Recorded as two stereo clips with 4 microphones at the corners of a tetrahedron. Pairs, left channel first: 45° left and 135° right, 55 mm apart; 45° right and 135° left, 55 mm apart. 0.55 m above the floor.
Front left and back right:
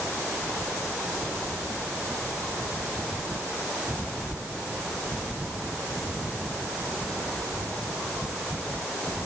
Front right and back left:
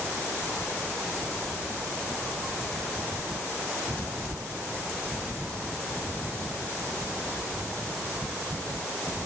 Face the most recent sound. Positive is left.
No sound to turn to.